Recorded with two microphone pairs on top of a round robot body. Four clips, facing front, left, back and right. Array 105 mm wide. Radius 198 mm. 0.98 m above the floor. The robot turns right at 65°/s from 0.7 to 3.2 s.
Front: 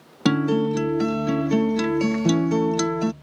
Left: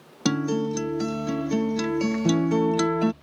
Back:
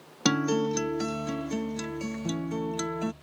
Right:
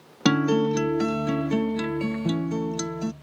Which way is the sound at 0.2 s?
85° right.